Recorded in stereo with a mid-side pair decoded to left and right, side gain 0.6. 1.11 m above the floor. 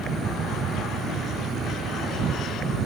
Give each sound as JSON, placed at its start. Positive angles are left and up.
{"t": 0.0, "sound": "an insect", "azimuth_deg": -40}